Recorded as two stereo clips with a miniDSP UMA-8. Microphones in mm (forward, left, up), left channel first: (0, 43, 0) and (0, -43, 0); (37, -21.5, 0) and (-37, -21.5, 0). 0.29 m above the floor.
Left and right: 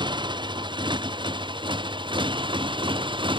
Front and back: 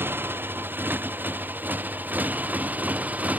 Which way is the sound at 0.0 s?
115° right.